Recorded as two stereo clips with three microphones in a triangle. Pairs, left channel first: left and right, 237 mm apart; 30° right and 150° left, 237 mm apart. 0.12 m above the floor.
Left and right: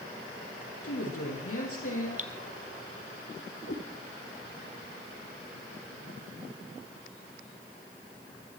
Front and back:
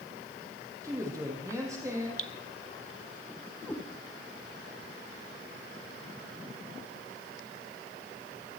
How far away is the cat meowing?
About 3 m.